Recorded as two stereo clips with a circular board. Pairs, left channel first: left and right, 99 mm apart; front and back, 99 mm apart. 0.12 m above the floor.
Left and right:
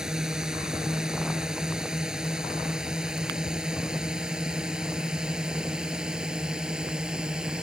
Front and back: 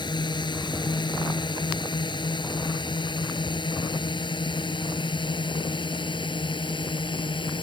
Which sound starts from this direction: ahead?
A drone, at 0.0 s.